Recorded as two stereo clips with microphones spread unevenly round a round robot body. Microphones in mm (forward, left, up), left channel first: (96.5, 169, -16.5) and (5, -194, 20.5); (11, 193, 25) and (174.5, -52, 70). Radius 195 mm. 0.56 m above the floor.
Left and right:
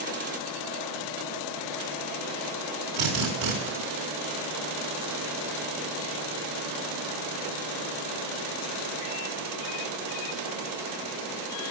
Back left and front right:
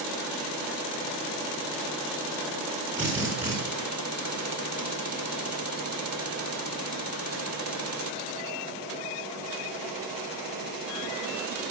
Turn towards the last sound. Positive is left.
turn(degrees=-145)